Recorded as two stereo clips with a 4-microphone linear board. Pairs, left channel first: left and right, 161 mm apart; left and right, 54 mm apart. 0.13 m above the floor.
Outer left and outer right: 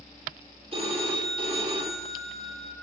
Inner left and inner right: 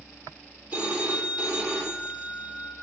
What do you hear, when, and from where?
0.7 s a phone ringing: 35° right (ahead or behind), 3 m